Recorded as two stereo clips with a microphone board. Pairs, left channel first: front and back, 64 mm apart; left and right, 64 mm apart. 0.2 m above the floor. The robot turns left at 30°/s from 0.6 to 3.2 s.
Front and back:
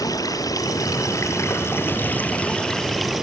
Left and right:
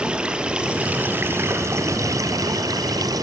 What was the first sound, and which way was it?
Running water, 15° right.